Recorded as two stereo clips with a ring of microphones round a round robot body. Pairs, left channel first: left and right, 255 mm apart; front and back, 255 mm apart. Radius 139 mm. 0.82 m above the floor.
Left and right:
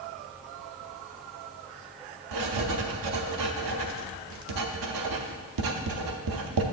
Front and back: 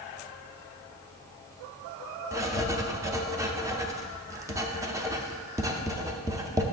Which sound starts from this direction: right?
Writing, at 2.3 s.